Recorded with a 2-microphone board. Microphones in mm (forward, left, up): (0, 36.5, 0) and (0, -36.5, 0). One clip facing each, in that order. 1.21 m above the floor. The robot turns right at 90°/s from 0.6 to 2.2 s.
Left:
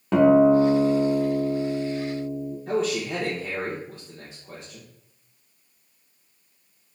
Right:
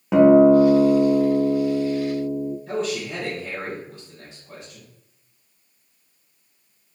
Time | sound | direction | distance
0.1 | a guitar | 170° right | 0.7 m
2.7 | a man speaking | 70° left (ahead or behind) | 1.2 m